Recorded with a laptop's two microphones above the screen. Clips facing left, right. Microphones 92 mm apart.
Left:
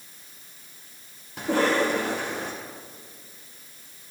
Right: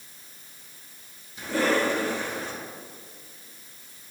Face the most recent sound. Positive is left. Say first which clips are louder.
# left 2 dB
turn(degrees=75)  # may be behind; listen again after turning